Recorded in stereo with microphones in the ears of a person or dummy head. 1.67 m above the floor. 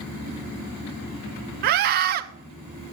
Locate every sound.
1.6 s a scream: 50° right (ahead or behind), 0.9 m